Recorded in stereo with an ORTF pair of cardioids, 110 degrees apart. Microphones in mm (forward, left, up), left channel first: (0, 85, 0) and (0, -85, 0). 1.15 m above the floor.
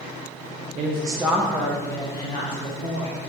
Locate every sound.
0.8 s a woman speaking: 45° right, 0.6 m; by 3.2 s 35° left, 2 m